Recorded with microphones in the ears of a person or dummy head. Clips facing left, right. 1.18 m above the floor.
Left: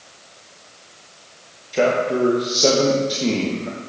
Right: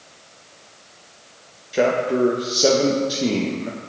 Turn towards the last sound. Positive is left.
turn(degrees=-10)  # may be behind; listen again after turning